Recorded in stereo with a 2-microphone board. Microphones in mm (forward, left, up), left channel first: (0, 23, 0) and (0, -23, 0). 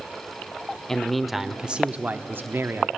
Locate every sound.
0.9 s a man speaking: 10° left (ahead or behind), 0.8 m; by 2.9 s 60° right (ahead or behind), 0.9 m